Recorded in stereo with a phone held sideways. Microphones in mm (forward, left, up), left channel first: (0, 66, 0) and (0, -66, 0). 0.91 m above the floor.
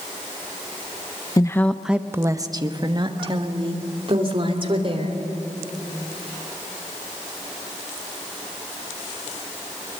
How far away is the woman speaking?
About 0.8 m.